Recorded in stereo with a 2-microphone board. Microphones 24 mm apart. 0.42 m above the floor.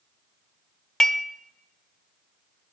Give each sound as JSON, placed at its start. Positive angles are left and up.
{"t": 1.0, "sound": "dishes clattering", "side_deg": 25, "distance_m": 0.8}